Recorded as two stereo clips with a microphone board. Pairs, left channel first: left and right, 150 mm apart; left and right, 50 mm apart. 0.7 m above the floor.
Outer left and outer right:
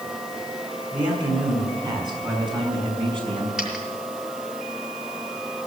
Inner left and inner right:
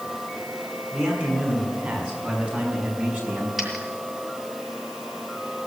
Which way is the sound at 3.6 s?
5° right (ahead or behind).